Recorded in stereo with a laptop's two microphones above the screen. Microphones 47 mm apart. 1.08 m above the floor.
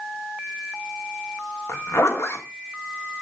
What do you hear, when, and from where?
1.7 s a zipper: 70° left (ahead or behind), 1.9 m